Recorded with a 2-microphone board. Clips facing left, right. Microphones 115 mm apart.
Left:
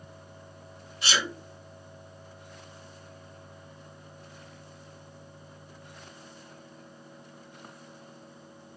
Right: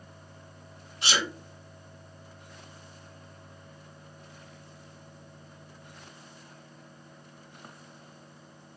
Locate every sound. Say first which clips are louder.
1.0 s a sneeze: even; 30° right (ahead or behind), 1.4 m